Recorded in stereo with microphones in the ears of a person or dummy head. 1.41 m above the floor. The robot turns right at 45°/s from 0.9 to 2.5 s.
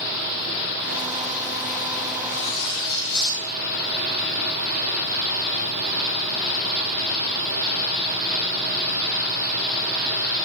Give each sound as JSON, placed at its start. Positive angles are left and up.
{"t": 2.2, "sound": "cutlery clinking", "side_deg": 70, "distance_m": 7.0}